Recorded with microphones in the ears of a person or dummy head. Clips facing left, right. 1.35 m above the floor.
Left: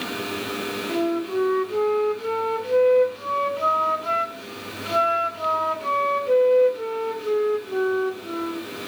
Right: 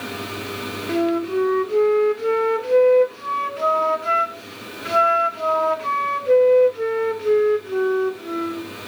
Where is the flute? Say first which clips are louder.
Right 4 dB; 25° right (ahead or behind), 2.5 m.